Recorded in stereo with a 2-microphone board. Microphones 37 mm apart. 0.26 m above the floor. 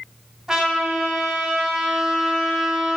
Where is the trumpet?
15° right (ahead or behind), 2 m.